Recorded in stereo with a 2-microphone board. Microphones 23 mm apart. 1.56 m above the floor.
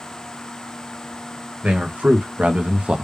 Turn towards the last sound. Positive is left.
turn(degrees=-60)  # may be behind; listen again after turning